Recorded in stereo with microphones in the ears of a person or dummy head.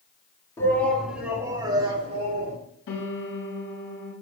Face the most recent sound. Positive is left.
turn(degrees=65)  # may be behind; listen again after turning